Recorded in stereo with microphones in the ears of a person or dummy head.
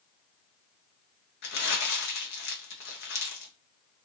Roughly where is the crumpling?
Left.